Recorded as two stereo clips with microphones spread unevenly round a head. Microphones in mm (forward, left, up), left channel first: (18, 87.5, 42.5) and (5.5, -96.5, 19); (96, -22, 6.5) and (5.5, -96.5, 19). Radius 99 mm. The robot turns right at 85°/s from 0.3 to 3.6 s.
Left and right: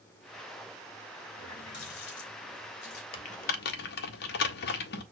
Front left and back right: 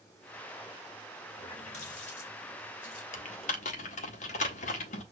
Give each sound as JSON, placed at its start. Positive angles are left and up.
{"t": 1.3, "sound": "a running tap", "azimuth_deg": -10, "distance_m": 3.0}
{"t": 3.1, "sound": "typing on a keyboard", "azimuth_deg": 35, "distance_m": 0.7}